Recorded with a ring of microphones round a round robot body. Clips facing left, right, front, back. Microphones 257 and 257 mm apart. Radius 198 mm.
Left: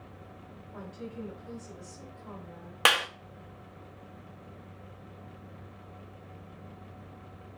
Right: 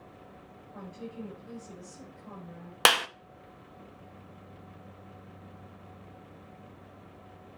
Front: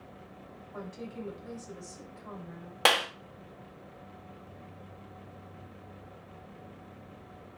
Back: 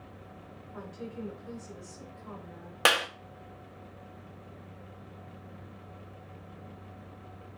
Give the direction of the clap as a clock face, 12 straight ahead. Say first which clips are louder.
Right 2 dB, even; 3 o'clock.